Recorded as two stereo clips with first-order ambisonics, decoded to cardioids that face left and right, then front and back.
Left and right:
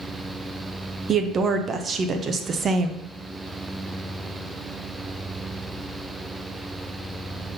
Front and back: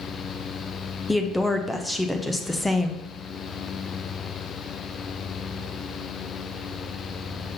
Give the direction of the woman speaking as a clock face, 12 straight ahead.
3 o'clock.